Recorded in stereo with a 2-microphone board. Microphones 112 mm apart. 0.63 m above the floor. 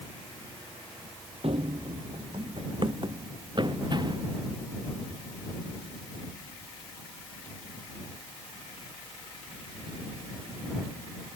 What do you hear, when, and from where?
1.4 s running footsteps: 65° right (ahead or behind); by 4.3 s 40° right (ahead or behind)